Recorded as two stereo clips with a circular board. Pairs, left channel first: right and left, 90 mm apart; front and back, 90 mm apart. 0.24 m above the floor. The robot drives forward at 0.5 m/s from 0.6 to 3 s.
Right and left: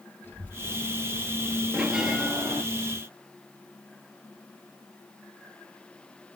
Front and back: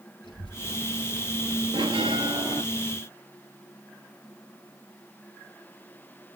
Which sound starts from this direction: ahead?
A child speaking, at 0.2 s.